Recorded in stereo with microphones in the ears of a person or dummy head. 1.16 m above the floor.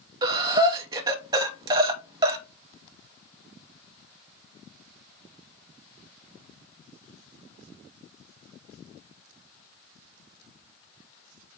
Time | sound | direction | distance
0.2 | breathing | 15° right (ahead or behind) | 0.5 m